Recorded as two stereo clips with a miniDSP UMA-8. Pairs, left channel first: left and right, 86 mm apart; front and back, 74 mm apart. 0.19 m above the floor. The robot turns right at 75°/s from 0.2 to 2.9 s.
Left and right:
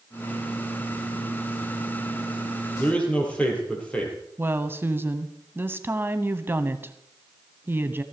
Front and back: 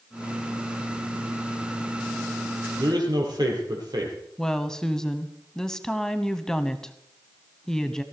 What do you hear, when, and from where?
2.8 s a man speaking: 155° left, 5 m; by 4.2 s 165° left, 5 m
4.4 s a woman speaking: 75° right, 1.0 m